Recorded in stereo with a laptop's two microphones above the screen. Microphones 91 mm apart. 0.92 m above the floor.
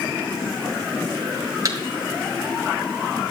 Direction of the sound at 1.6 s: 40° right (ahead or behind).